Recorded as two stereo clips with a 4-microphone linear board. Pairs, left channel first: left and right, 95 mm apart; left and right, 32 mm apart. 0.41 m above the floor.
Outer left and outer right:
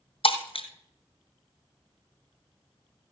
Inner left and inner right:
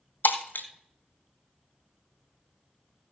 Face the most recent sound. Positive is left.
turn(degrees=80)